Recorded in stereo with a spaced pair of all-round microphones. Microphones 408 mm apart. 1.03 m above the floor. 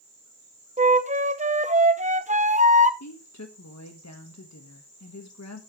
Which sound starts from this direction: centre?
A flute, at 0.8 s.